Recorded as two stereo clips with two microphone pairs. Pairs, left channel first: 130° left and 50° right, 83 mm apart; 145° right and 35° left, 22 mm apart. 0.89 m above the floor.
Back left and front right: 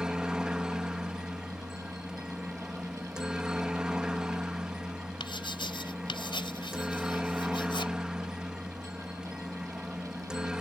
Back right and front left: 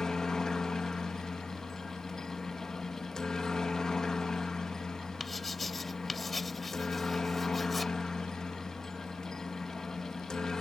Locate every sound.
0.0 s a helicopter: 125° right
5.2 s writing: 125° left